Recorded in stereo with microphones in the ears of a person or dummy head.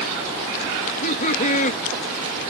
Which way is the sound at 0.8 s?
45° left (ahead or behind).